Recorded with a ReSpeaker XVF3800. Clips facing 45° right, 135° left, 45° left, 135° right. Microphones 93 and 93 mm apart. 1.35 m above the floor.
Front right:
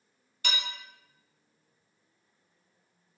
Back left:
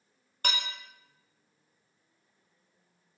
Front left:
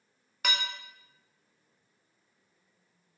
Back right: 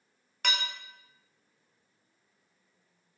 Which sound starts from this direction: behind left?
Dishes clattering, at 0.4 s.